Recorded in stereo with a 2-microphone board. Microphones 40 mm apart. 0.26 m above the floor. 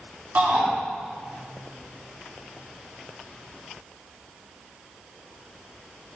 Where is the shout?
65° right (ahead or behind), 3 m.